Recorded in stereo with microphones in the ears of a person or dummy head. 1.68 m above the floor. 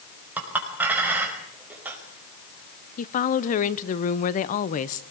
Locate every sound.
0.4 s a clink: 5° right (ahead or behind), 4.5 m
3.0 s a woman speaking: 45° left (ahead or behind), 1.0 m